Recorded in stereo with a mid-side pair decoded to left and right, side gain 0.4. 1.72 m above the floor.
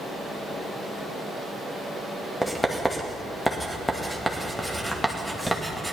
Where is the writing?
Straight ahead, 2.5 m.